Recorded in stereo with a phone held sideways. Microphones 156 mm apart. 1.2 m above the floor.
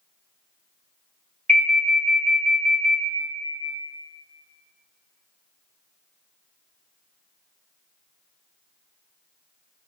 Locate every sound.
1.5 s an alarm: 55° right (ahead or behind), 0.9 m